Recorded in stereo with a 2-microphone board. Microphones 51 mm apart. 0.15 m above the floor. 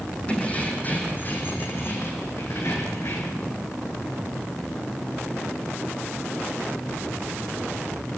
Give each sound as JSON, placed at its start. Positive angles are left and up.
{"t": 0.3, "sound": "keys jangling", "side_deg": 25, "distance_m": 5.0}